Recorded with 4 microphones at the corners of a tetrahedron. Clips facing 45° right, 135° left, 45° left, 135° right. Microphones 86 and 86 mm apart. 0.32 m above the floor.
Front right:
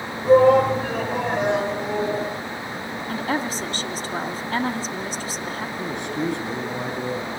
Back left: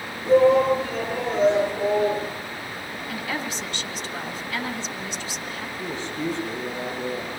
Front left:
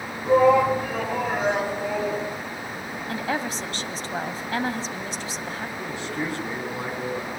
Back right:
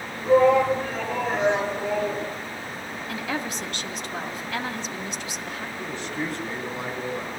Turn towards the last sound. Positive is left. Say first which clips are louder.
# front right 3 dB, even
turn(degrees=-35)